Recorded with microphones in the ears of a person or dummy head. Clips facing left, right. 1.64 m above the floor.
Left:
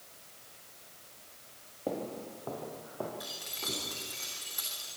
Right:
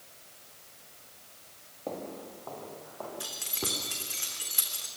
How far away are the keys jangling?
About 3 m.